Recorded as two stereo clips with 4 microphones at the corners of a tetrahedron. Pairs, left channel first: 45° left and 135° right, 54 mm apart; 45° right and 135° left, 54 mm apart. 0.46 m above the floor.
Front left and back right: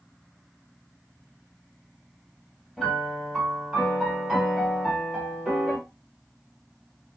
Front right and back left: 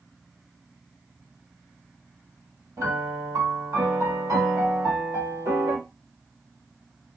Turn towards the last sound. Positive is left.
turn(degrees=150)